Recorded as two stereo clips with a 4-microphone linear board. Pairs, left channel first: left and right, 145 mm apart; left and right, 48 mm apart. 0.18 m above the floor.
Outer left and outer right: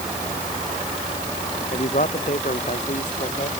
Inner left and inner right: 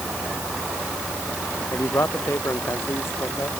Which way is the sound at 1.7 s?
60° left (ahead or behind).